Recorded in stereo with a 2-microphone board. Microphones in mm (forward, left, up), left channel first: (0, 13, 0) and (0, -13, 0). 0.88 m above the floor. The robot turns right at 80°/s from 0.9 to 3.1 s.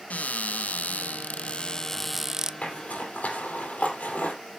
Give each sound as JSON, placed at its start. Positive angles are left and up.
{"t": 0.1, "sound": "a cupboard door", "azimuth_deg": 80, "distance_m": 0.5}
{"t": 2.6, "sound": "a zipper", "side_deg": 65, "distance_m": 4.0}